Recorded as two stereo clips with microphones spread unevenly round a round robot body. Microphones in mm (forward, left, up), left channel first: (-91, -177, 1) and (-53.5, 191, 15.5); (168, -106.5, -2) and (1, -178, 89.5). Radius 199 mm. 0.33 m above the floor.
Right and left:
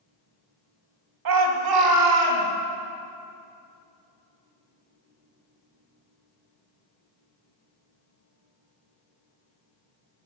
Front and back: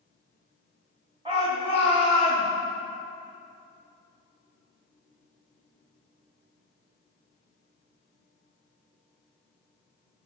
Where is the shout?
115° left, 1.9 m; by 2.5 s 105° left, 3 m.